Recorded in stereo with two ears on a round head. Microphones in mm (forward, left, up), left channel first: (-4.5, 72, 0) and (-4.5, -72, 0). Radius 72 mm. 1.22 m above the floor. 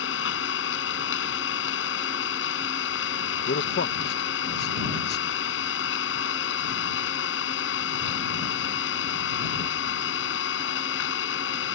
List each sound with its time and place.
0.0 s an engine running: 80° left
3.5 s a man speaking: 65° left (ahead or behind)